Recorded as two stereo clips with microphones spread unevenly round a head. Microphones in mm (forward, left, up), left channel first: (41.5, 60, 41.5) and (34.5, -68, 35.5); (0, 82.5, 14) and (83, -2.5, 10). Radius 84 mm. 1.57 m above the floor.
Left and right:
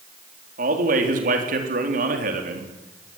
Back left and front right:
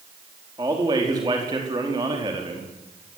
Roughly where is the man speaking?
Behind right.